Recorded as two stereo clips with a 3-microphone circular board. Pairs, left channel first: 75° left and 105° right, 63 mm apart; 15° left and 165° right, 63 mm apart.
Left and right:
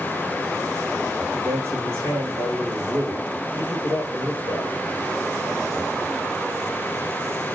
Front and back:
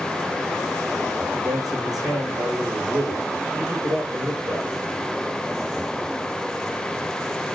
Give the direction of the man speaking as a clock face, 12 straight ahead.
5 o'clock.